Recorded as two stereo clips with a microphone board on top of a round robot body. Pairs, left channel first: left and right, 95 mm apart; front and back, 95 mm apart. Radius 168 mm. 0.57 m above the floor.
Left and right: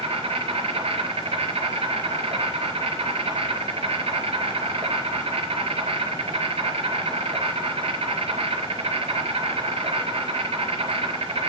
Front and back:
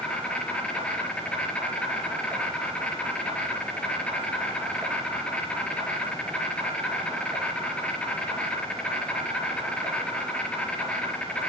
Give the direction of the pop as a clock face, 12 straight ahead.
I don't hear a pop.